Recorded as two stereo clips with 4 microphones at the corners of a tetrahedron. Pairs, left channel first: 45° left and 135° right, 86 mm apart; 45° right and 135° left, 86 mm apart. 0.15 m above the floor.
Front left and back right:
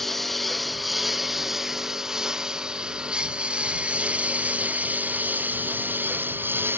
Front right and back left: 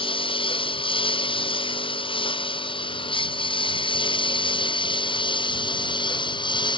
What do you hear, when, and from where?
0.0 s a lawn mower: 40° right; by 6.8 s 70° right